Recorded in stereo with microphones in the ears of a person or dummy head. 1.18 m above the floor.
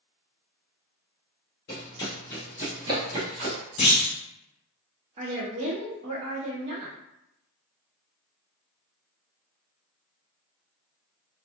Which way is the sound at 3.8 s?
25° left (ahead or behind).